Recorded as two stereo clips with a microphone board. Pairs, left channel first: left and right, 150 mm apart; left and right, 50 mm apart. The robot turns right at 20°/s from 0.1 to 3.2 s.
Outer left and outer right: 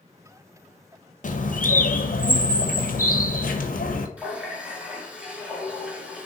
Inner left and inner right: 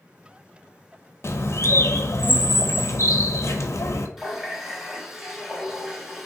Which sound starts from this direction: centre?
A running tap, at 4.2 s.